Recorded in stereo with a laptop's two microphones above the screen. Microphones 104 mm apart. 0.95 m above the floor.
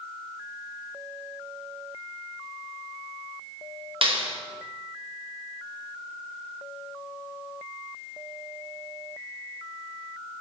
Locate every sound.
4.0 s a clap: 60° right (ahead or behind), 3 m